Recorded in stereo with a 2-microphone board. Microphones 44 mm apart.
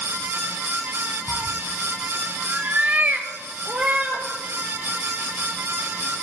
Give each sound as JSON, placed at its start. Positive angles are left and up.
{"t": 1.3, "sound": "a cat meowing", "side_deg": -30, "distance_m": 0.8}